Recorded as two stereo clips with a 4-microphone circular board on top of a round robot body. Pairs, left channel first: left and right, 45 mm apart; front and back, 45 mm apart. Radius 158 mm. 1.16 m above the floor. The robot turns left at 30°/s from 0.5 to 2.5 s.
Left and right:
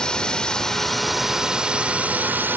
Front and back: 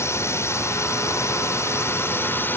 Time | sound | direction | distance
0.0 | a drone | 15° left | ?